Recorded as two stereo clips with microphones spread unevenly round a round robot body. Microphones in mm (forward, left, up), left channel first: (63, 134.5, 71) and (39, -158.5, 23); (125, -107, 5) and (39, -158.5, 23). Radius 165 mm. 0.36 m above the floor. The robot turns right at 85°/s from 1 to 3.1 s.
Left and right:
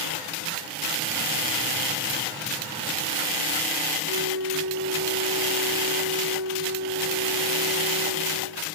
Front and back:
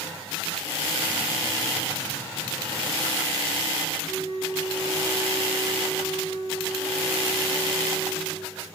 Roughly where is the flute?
Behind right.